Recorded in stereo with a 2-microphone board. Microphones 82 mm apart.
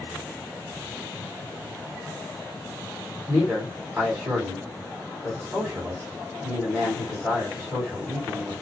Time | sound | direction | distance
3.3 | a man speaking | 15° right (ahead or behind) | 1.7 m